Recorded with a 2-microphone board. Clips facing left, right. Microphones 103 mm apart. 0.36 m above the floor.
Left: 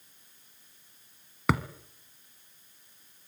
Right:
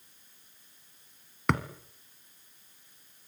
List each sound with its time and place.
1.5 s a thud: 5° left (ahead or behind), 1.3 m